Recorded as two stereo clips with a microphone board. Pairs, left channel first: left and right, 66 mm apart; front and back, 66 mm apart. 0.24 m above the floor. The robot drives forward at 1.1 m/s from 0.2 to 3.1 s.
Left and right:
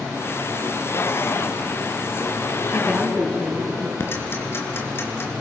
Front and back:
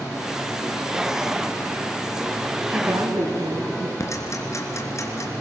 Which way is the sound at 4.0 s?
40° left.